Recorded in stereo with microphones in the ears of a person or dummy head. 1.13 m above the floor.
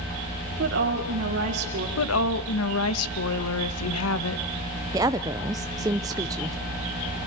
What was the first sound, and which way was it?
A woman speaking, 55° right (ahead or behind).